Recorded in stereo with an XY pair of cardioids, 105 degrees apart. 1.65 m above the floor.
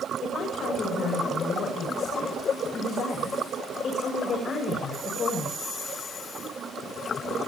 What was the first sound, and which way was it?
A woman speaking, 60° left.